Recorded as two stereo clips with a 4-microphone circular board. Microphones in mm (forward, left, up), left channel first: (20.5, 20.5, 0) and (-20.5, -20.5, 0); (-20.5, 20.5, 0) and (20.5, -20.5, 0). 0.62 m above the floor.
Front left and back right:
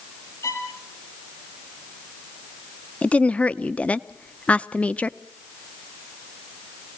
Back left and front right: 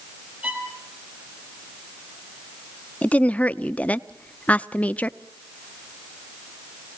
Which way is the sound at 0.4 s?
15° left.